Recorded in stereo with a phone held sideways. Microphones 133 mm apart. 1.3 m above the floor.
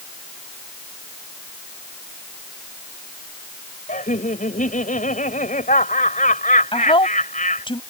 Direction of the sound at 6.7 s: 40° left (ahead or behind).